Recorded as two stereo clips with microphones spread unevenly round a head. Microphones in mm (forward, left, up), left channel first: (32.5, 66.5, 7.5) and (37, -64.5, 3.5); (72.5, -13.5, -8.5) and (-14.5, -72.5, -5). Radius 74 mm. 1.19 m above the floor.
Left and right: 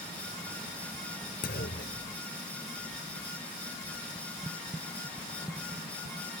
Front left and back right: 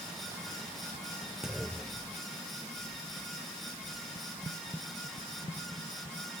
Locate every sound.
1.4 s a clunk: 130° left